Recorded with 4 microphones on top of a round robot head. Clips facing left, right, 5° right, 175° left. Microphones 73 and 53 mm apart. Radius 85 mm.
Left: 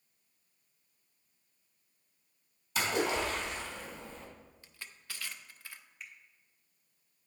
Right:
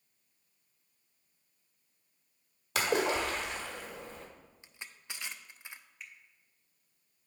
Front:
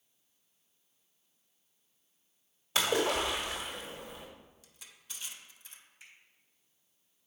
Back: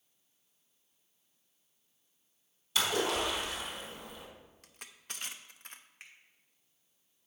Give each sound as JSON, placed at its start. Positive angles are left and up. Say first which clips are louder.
{"t": 2.8, "sound": "a splash", "louder": "right 2 dB, front 2 dB", "azimuth_deg": -65, "distance_m": 1.4}
{"t": 4.6, "sound": "crushing", "louder": "right 2 dB, back 5 dB", "azimuth_deg": -160, "distance_m": 0.5}
{"t": 6.0, "sound": "a finger snap", "louder": "left 1 dB, back 1 dB", "azimuth_deg": 180, "distance_m": 1.3}